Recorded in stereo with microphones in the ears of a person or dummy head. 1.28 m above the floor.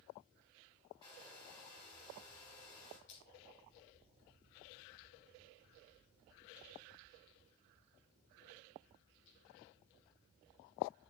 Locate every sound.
1.0 s a hair dryer: 25° left (ahead or behind), 3 m
3.1 s crushing: 35° left (ahead or behind), 4.5 m